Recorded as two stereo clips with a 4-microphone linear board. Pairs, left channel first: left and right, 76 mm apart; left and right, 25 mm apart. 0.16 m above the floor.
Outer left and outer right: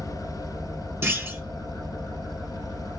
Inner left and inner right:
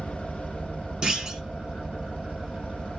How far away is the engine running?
About 2 m.